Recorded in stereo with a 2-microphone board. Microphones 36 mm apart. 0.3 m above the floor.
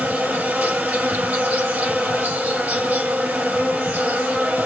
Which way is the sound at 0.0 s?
40° right (ahead or behind).